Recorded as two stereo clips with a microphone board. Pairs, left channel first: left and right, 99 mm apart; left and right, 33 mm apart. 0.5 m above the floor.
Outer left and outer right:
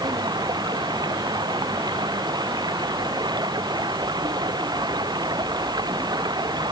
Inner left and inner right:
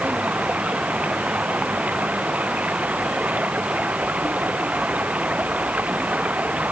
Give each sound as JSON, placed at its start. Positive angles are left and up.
{"t": 0.0, "sound": "running water", "side_deg": -45}